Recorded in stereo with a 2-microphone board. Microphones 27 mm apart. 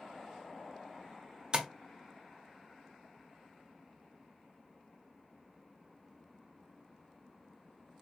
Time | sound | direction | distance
1.5 | tapping | 35° right (ahead or behind) | 0.6 m